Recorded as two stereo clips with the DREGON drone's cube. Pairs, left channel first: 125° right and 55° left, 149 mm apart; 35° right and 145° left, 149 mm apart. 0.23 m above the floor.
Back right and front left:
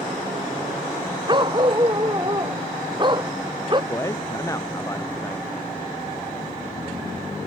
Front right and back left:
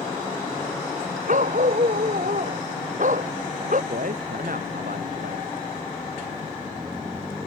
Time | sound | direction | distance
1.3 | a dog barking | 115° left | ?
3.9 | a man speaking | 165° left | ?